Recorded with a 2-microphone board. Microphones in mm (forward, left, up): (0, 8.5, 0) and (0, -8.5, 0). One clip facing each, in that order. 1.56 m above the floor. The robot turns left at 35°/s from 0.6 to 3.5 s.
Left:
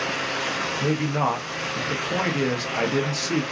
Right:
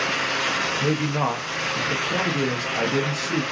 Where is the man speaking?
165° right, 0.6 m; by 3.4 s 105° left, 0.6 m.